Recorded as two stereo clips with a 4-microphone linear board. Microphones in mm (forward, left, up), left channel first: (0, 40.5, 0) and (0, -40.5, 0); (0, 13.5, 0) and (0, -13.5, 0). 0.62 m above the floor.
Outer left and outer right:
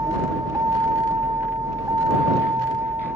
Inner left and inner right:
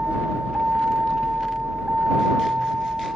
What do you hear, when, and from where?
0.0 s a vehicle: 45° right (ahead or behind)